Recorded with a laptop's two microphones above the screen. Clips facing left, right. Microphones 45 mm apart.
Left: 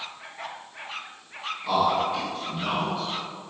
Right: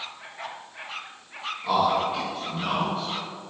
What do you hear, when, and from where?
1.6 s a man speaking: 10° right (ahead or behind), 1.6 m